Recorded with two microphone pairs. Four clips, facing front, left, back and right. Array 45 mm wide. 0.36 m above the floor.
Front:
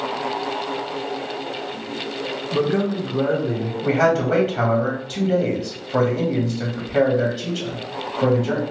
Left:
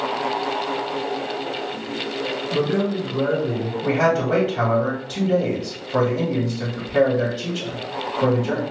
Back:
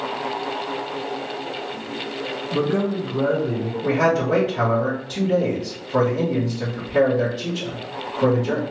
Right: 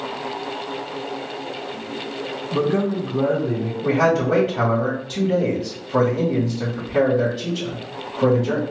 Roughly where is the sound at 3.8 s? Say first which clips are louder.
Right 1 dB, front 1 dB; ahead left.